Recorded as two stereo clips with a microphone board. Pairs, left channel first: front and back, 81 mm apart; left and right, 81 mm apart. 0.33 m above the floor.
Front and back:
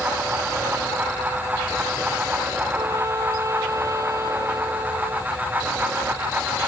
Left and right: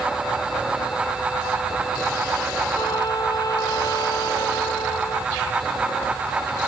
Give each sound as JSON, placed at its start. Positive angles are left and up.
{"t": 2.8, "sound": "a trumpet", "azimuth_deg": 130}